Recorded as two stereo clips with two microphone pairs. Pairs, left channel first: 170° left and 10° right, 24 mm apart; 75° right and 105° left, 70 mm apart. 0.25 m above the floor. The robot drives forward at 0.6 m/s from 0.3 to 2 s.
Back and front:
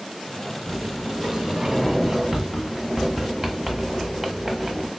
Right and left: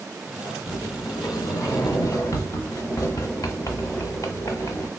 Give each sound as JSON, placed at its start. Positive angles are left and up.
{"t": 0.7, "sound": "a sliding door", "azimuth_deg": -50, "distance_m": 1.2}